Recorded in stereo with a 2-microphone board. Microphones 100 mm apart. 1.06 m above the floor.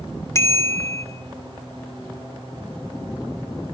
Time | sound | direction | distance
0.3 | a bicycle bell | 30° left (ahead or behind) | 2 m